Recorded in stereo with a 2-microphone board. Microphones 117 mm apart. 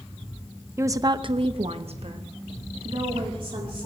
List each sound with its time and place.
0.8 s a woman speaking: 20° right (ahead or behind), 0.8 m; by 3.9 s 50° right (ahead or behind), 2.5 m